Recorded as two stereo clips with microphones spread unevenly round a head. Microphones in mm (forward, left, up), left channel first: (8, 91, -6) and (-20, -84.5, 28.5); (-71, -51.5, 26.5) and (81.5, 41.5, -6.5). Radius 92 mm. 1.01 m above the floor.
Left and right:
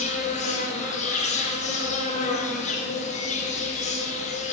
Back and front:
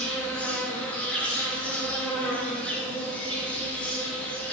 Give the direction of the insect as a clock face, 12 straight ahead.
8 o'clock.